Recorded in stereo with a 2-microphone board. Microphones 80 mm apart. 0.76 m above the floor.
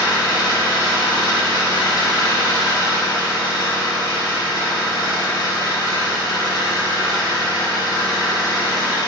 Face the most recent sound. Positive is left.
turn(degrees=75)  # may be behind; listen again after turning